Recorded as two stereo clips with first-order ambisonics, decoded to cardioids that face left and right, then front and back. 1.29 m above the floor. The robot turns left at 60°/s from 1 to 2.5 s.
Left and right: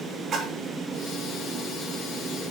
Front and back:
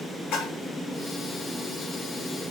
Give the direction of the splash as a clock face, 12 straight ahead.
1 o'clock.